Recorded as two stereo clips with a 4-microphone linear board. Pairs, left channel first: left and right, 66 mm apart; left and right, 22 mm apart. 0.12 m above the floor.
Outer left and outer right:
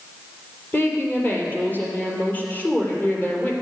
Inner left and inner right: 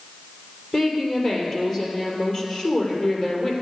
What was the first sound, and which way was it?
A woman speaking, 25° left (ahead or behind).